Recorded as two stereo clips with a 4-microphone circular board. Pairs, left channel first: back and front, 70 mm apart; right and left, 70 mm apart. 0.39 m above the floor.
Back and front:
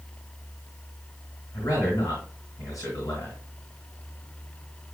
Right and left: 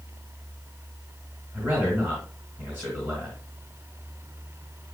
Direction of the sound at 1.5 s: 150° left.